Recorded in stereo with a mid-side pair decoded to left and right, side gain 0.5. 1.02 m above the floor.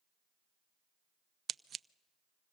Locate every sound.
1.5 s scissors: 45° right, 0.5 m